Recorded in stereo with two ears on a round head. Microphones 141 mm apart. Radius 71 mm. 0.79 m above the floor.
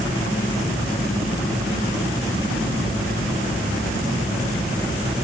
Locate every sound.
Only background noise.